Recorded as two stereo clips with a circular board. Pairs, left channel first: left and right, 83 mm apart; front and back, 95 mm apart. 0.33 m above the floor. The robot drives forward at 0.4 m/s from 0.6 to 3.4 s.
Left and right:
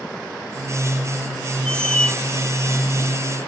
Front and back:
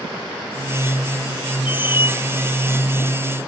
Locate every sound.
1.6 s a squeak: 10° left; by 2.1 s 15° left